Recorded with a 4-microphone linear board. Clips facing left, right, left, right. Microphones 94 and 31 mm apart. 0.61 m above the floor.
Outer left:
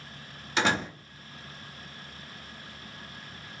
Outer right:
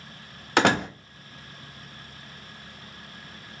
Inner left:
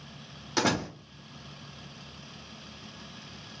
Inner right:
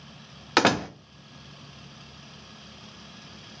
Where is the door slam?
60° right (ahead or behind), 0.6 m.